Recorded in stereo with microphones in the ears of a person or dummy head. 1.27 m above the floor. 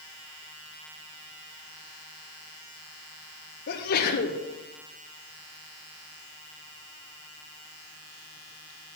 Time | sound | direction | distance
3.7 | a sneeze | 50° left (ahead or behind) | 1.0 m